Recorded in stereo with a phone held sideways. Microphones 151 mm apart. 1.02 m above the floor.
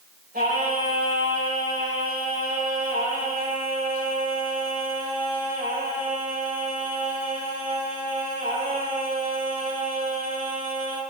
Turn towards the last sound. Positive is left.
turn(degrees=-80)